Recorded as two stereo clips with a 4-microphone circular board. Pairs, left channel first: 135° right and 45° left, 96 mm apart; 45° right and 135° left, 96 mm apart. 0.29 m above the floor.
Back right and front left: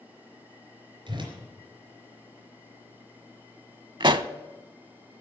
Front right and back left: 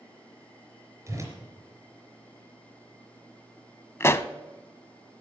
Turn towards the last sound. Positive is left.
turn(degrees=15)